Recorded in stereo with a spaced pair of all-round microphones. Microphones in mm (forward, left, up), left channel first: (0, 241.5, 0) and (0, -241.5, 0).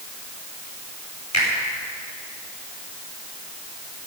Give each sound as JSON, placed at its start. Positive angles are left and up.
{"t": 1.3, "sound": "a finger snap", "side_deg": 35, "distance_m": 5.0}